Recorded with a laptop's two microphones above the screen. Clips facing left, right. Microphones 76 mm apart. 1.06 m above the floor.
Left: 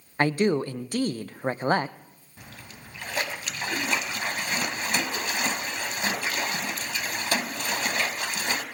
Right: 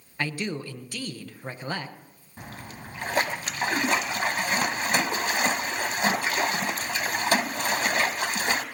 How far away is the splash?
About 1.1 m.